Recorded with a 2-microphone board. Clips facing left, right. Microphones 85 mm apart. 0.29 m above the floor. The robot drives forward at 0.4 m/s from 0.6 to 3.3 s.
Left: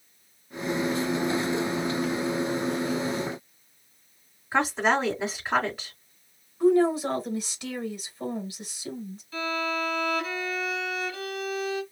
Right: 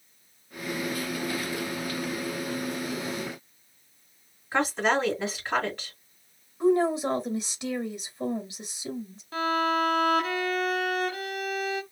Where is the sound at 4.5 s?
5° left (ahead or behind), 1.7 m.